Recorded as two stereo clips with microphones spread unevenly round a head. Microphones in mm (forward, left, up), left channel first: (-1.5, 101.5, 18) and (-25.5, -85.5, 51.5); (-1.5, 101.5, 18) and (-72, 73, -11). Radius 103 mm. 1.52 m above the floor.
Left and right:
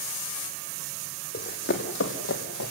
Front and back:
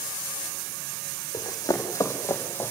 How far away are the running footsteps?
About 3.5 m.